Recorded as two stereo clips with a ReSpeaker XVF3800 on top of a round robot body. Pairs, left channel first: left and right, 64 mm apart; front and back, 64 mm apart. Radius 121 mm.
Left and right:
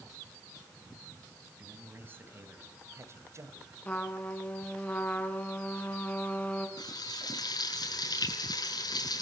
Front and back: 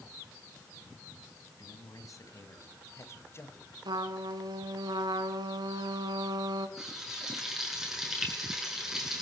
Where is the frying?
95° left, 7.5 m.